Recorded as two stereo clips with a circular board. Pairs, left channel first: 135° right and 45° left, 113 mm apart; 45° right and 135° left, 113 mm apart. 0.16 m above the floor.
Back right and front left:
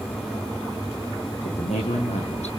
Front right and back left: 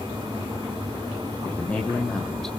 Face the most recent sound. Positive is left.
turn(degrees=-130)